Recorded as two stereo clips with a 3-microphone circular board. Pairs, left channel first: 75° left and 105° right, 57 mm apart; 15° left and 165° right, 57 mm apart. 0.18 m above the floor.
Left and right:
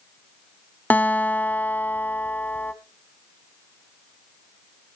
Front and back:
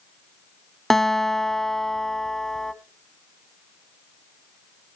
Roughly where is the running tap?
No running tap in this recording.